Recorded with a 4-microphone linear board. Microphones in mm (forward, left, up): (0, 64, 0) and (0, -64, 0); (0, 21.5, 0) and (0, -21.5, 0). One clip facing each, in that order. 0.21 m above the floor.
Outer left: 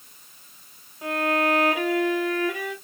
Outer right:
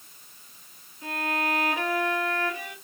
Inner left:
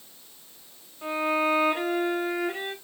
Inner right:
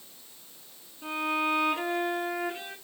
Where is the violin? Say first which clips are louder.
Outer left 6 dB, inner left 4 dB; 80° left, 2.5 m.